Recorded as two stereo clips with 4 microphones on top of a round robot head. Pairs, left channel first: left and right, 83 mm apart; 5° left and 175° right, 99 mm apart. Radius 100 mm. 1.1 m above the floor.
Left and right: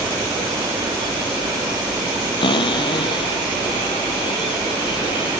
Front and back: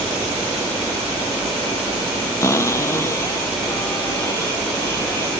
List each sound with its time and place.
2.4 s a cupboard door: 65° left